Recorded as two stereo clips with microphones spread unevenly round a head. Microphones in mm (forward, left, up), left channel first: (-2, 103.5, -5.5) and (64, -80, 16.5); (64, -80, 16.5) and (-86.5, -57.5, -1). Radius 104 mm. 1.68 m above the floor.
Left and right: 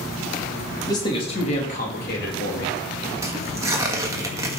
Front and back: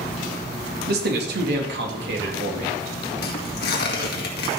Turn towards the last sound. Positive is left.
turn(degrees=5)